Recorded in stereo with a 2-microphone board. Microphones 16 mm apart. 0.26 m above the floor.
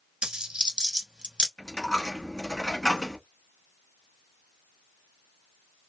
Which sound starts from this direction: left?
A dropped coin, at 1.6 s.